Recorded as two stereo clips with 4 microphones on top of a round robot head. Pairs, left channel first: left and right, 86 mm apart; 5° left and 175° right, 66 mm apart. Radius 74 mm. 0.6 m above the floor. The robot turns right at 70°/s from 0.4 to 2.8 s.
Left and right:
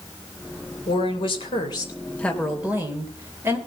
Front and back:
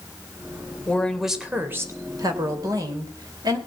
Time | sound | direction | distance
0.9 | a woman speaking | 70° left | 3 m